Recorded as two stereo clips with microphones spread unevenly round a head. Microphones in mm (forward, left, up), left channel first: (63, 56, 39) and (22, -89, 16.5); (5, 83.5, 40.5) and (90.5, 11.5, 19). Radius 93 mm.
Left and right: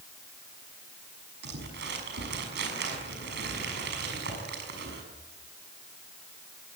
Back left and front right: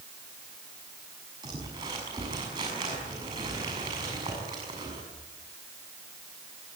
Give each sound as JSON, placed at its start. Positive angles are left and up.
{"t": 1.4, "sound": "crumpling", "azimuth_deg": -105, "distance_m": 6.5}